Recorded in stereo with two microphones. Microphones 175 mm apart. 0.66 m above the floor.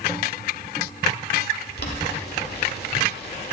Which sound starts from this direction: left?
Boiling, at 1.8 s.